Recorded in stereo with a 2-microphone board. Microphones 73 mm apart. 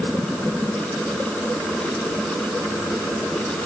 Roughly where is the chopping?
I don't hear chopping.